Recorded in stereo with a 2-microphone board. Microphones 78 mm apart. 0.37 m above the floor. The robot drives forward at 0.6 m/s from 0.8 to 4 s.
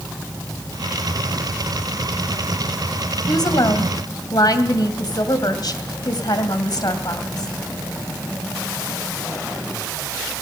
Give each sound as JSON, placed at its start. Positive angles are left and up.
{"t": 3.3, "sound": "a woman speaking", "side_deg": 60, "distance_m": 2.0}